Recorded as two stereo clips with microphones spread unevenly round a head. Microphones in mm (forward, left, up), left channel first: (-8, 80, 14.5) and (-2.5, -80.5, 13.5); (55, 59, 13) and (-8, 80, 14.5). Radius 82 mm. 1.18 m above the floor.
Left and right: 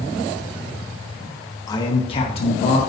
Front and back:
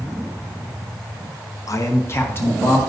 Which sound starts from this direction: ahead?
A man speaking, at 1.7 s.